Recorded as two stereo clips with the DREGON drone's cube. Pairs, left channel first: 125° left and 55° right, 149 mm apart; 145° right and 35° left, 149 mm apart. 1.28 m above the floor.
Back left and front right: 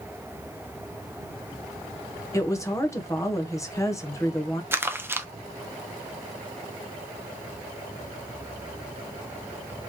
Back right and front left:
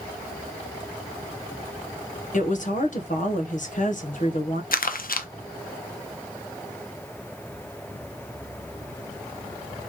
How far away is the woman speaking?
About 1.0 m.